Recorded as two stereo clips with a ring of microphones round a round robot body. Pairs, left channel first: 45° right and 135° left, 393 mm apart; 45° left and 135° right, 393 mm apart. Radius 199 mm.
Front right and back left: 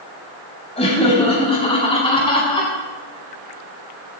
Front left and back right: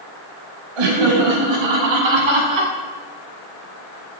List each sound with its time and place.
0.8 s laughter: 120° right, 5 m